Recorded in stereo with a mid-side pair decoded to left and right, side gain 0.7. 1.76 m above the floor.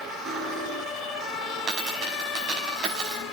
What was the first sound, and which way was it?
Cutlery clinking, 45° right.